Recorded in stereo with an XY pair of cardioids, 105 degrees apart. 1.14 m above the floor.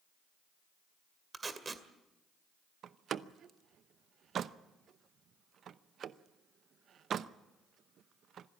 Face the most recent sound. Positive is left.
turn(degrees=-55)